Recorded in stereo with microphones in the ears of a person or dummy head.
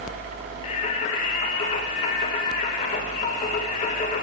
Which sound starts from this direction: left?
Singing, at 0.6 s.